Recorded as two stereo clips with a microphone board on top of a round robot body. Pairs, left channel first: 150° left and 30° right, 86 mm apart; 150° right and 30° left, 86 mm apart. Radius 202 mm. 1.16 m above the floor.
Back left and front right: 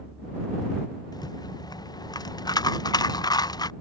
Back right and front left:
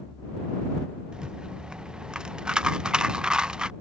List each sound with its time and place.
1.1 s a rattle: 110° left